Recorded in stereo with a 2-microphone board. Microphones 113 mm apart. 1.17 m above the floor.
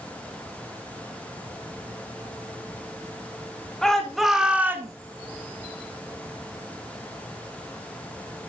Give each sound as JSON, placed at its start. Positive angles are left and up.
{"t": 3.8, "sound": "a shout", "side_deg": 5, "distance_m": 2.0}